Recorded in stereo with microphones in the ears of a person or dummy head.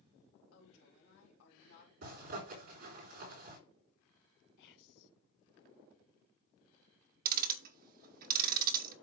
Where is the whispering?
60° left (ahead or behind), 0.7 m.